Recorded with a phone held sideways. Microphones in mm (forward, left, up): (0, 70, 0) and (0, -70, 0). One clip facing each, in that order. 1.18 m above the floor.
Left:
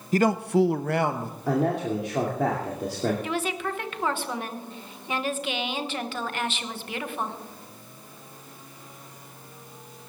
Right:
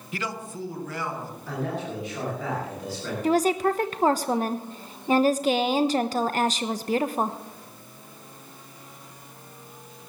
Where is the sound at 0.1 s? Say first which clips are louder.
Left 13 dB; 40° left (ahead or behind), 0.6 m; by 1.4 s 60° left (ahead or behind), 1.5 m.